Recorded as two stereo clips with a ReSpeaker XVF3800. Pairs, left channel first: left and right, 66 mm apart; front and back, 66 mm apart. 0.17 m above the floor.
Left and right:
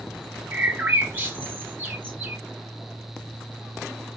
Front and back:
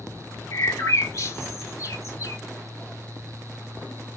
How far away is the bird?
About 1.3 m.